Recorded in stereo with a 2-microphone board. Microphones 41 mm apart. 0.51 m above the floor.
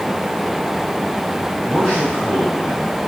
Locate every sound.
1.6 s a man speaking: 15° right (ahead or behind), 4.5 m